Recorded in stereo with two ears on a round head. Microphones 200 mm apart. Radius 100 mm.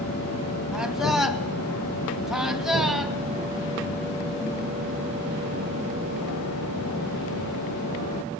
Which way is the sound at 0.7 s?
Centre (ahead or behind).